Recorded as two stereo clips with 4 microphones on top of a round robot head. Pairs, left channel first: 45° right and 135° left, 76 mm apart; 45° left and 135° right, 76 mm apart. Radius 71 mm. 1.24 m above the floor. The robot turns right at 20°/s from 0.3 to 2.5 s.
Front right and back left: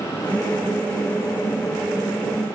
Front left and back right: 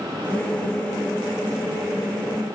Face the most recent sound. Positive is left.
No sound to turn to.